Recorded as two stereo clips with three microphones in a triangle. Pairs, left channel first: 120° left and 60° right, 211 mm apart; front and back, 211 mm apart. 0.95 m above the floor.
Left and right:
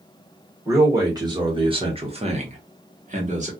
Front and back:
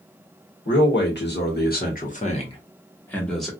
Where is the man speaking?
10° left, 1.6 m; by 3.5 s 95° right, 1.1 m.